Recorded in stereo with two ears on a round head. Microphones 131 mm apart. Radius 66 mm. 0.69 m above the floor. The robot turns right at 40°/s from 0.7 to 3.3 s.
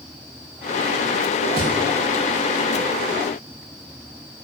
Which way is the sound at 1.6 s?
70° right (ahead or behind).